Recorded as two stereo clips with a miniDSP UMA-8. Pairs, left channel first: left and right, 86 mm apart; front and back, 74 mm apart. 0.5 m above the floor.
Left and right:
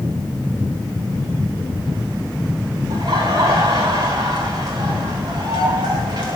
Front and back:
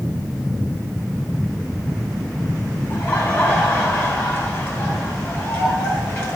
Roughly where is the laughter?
Ahead right.